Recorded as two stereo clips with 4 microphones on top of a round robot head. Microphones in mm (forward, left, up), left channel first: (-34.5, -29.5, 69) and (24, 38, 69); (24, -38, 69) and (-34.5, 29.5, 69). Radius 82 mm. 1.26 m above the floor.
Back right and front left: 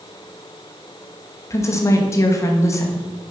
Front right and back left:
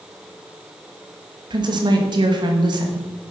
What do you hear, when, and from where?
1.5 s a woman speaking: 170° left, 1.7 m